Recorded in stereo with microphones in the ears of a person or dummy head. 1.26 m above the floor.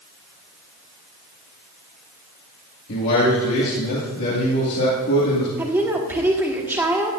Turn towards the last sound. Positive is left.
turn(degrees=-10)  # may be behind; listen again after turning